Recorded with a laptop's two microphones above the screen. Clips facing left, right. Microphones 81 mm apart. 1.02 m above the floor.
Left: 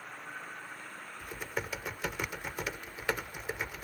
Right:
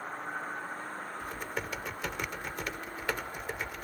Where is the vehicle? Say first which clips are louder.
Right 7 dB; 35° right (ahead or behind); by 3.8 s 40° right (ahead or behind).